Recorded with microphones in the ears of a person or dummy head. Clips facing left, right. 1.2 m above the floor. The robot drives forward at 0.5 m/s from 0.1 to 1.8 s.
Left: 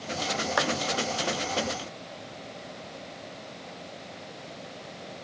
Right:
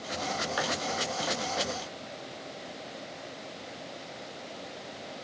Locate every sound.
0.6 s a clap: 70° left (ahead or behind), 1.6 m; by 0.7 s 65° left (ahead or behind), 1.6 m